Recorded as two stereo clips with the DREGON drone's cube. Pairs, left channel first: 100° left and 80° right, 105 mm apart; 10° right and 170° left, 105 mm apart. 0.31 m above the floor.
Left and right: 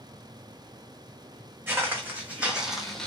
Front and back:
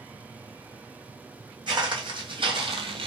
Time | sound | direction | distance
1.7 | footsteps | 145° right | 1.2 m